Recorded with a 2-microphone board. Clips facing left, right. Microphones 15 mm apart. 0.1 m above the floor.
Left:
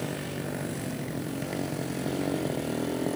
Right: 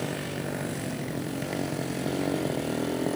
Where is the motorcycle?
5° right (ahead or behind); by 3.2 s centre (ahead or behind).